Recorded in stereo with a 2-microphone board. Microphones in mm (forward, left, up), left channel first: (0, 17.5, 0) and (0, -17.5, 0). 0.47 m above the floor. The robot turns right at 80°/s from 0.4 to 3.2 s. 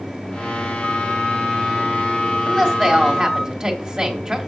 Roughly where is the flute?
Behind.